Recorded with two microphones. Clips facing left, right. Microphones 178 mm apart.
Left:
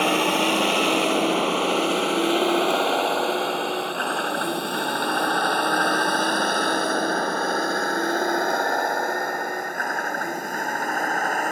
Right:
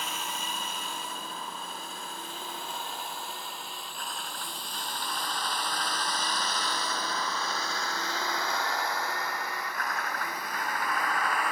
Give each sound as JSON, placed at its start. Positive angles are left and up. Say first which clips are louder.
{"t": 0.0, "sound": "a vehicle", "louder": "left 18 dB", "side_deg": 75}